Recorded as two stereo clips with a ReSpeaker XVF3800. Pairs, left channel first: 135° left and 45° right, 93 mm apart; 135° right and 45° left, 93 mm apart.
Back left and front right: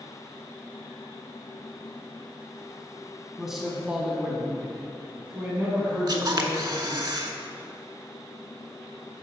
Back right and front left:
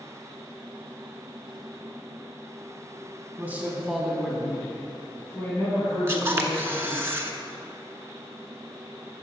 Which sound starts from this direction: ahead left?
A man speaking, at 3.4 s.